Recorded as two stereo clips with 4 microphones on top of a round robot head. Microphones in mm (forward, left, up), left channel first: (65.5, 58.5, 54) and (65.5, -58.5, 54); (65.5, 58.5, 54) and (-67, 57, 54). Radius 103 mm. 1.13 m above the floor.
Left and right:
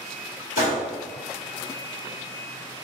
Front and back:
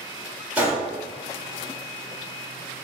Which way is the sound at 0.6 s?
100° left.